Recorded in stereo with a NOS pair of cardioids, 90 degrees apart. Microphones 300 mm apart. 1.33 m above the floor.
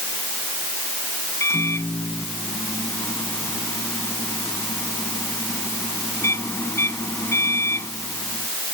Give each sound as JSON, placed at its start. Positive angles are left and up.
{"t": 1.4, "sound": "a microwave", "azimuth_deg": 10}